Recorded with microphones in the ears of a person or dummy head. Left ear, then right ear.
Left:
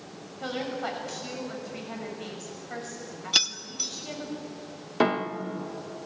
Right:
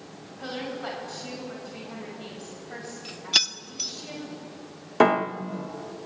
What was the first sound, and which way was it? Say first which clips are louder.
A woman speaking: left 2 dB; 20° left (ahead or behind).